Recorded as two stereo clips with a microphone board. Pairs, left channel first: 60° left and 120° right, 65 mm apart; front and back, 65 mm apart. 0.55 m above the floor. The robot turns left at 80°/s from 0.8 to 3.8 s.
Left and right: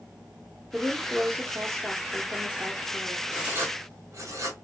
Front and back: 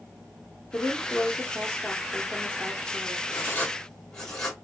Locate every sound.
0.7 s a woman speaking: 40° right, 0.8 m; by 3.2 s 130° left, 0.8 m
3.3 s writing: 40° right, 0.9 m; by 4.5 s 80° right, 0.9 m